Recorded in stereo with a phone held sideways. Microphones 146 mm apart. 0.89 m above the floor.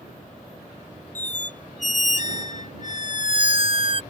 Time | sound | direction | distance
1.1 | a squeak | 55° left (ahead or behind) | ?